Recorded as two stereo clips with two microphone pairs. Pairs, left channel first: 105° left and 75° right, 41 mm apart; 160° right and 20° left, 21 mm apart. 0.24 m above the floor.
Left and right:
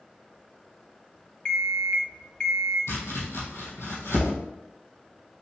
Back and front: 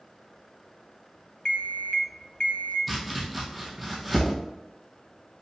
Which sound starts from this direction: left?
Chopping, at 2.9 s.